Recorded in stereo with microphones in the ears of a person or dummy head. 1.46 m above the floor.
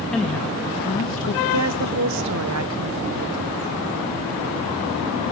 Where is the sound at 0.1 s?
Centre (ahead or behind), 2.5 m; by 1.4 s 45° left (ahead or behind), 1.7 m.